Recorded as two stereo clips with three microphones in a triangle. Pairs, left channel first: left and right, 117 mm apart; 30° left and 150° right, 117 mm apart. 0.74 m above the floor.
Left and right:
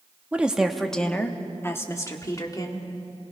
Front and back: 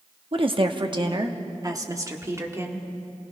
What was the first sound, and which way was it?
A woman speaking, 165° right.